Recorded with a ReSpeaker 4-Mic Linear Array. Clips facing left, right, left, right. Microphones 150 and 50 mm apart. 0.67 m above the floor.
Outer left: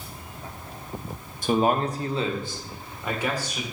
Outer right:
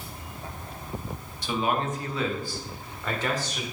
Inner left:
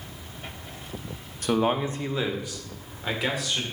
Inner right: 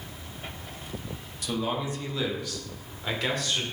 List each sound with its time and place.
1.4 s a man speaking: 50° left (ahead or behind), 0.7 m; by 3.6 s 10° left (ahead or behind), 1.9 m